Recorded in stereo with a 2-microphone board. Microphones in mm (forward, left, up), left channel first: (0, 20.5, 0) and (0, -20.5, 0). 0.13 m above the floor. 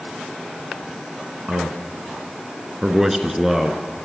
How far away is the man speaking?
About 1.1 m.